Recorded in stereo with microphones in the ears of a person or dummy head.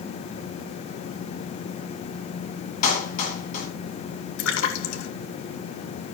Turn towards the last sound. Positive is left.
turn(degrees=85)